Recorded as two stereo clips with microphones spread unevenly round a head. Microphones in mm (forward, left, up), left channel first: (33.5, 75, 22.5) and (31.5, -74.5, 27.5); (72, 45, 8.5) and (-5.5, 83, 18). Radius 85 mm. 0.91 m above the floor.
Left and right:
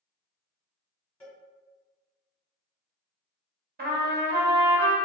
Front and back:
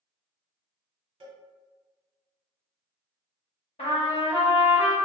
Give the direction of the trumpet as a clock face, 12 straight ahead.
2 o'clock.